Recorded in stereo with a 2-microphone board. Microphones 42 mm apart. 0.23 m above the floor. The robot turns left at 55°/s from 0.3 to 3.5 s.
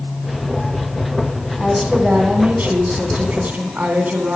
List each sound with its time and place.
1.6 s a woman speaking: 10° right, 2.5 m; by 4.4 s 115° right, 2.5 m